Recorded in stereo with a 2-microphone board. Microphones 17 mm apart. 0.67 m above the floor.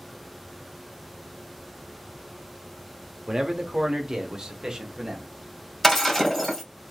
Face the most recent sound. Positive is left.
turn(degrees=15)  # may be behind; listen again after turning